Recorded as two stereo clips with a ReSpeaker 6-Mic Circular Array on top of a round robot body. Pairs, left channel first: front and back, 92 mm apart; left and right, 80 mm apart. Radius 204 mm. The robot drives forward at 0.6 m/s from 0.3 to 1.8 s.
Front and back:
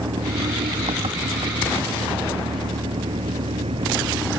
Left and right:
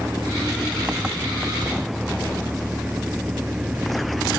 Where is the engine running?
170° right.